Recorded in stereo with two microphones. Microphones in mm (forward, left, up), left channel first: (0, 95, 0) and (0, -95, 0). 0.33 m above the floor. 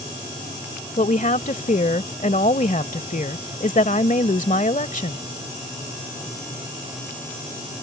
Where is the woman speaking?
45° left (ahead or behind).